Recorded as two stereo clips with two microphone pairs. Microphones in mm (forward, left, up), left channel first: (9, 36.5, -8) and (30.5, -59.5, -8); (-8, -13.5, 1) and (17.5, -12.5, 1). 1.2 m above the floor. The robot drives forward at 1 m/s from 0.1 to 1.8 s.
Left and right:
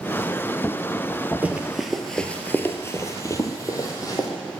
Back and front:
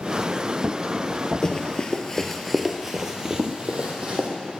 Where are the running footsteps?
135° right, 1.4 m; by 4.3 s 50° left, 2.5 m.